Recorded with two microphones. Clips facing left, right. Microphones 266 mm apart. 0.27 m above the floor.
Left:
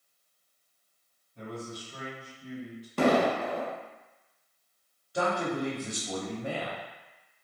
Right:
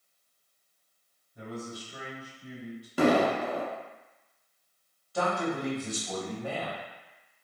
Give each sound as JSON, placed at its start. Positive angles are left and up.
{"t": 1.4, "sound": "a man speaking", "side_deg": -5, "distance_m": 2.0}
{"t": 3.0, "sound": "an explosion", "side_deg": -5, "distance_m": 0.7}
{"t": 5.1, "sound": "a man speaking", "side_deg": 20, "distance_m": 0.9}